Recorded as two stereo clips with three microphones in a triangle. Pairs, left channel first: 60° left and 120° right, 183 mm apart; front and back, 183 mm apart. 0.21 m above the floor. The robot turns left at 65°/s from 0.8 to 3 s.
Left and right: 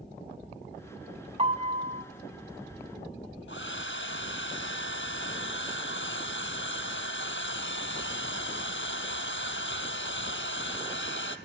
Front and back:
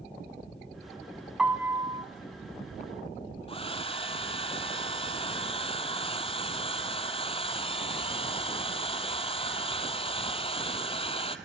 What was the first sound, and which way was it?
A piano, 95° right.